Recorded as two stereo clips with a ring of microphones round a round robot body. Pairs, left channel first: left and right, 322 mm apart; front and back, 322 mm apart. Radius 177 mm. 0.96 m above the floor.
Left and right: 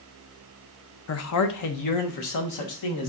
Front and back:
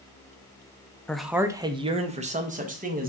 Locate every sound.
1.1 s a man speaking: 85° left, 0.5 m; by 3.1 s 115° left, 1.4 m